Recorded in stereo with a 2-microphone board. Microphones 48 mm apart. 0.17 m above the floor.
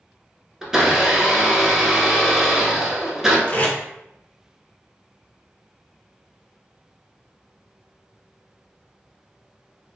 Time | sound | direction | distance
0.6 | a blender | 10° right (ahead or behind) | 0.7 m
3.5 | tape being pulled | 40° left (ahead or behind) | 0.7 m